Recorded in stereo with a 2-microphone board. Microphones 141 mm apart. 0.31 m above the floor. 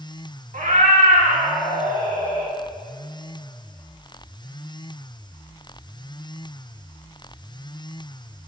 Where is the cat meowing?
65° right (ahead or behind), 1.4 m.